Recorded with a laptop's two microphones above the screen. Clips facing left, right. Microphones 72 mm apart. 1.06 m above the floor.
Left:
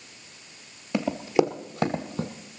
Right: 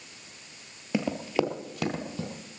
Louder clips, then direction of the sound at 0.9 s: Left 4 dB; 5° right (ahead or behind).